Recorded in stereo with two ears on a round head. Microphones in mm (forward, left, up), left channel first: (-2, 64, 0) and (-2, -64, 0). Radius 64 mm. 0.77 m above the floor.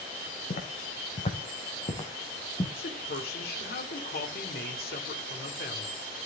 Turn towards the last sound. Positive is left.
turn(degrees=70)  # may be behind; listen again after turning